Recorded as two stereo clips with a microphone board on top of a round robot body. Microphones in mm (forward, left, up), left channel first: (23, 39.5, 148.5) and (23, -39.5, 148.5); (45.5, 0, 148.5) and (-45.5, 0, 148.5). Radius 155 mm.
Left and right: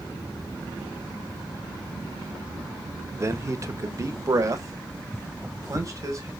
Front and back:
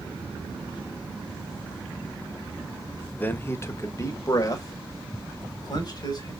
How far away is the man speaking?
About 1.0 m.